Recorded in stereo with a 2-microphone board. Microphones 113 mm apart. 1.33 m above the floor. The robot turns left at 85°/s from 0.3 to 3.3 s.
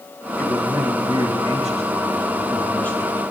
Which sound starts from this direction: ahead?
A man speaking, at 0.4 s.